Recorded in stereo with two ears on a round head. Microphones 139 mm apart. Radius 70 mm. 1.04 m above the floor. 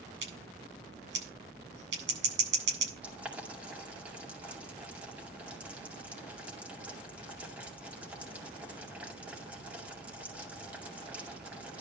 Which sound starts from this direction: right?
Scissors, at 0.2 s.